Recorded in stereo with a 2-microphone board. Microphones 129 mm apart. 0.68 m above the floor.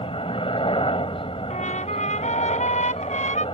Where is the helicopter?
45° left (ahead or behind).